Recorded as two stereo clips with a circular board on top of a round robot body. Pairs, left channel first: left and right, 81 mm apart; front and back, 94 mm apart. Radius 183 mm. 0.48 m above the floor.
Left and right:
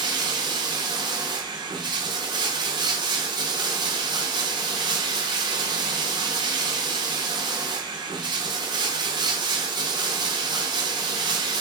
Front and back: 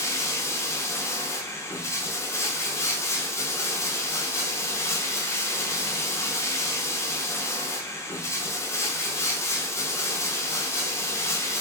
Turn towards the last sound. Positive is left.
turn(degrees=-60)